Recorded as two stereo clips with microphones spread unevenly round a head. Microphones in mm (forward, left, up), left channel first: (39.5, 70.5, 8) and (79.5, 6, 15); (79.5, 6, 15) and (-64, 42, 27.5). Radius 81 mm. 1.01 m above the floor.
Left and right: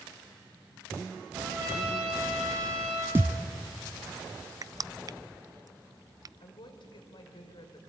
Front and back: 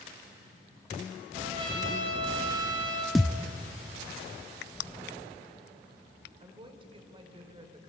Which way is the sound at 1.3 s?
130° right.